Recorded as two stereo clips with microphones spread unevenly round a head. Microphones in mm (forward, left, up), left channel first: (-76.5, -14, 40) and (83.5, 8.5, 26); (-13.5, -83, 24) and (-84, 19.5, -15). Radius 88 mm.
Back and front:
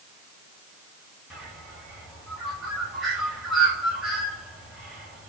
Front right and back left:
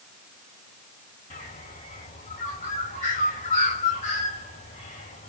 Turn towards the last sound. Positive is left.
turn(degrees=-80)